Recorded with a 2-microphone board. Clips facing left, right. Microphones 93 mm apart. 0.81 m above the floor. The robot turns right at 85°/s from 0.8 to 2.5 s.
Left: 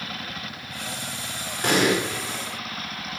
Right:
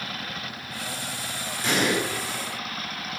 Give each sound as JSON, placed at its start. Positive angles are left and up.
{"t": 1.6, "sound": "an explosion", "side_deg": 55, "distance_m": 1.6}